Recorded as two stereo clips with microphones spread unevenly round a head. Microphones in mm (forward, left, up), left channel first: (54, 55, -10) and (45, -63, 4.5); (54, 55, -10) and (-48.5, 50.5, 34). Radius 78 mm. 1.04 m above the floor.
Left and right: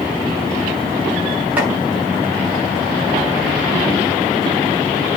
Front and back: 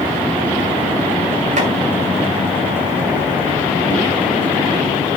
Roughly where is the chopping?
Behind.